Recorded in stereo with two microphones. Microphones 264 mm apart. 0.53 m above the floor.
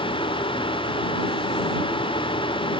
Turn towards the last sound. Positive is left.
No sound to turn to.